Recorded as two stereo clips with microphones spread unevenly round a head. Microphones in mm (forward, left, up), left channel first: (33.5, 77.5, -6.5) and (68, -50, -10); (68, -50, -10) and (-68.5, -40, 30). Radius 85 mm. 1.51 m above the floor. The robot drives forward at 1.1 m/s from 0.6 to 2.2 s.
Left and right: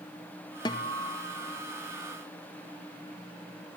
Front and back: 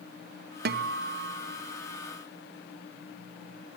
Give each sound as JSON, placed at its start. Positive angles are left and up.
{"t": 0.7, "sound": "a guitar", "azimuth_deg": 170, "distance_m": 0.8}